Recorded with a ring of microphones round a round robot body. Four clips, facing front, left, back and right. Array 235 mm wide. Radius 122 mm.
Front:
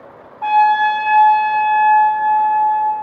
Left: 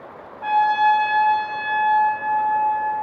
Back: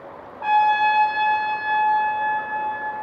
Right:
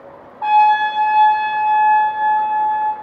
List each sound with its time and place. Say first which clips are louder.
0.4 s a trumpet: right 5 dB, front 5 dB; 55° right, 1.4 m